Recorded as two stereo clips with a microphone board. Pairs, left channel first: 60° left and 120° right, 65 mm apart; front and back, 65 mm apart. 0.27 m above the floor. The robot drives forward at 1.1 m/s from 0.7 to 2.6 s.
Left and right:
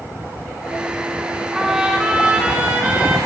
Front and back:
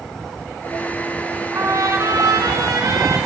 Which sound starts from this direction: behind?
A trumpet, at 1.5 s.